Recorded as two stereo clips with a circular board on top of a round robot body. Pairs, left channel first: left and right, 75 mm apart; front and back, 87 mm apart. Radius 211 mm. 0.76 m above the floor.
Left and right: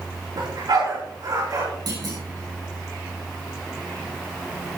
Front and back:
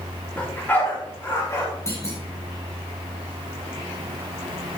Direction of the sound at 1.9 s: 60° right.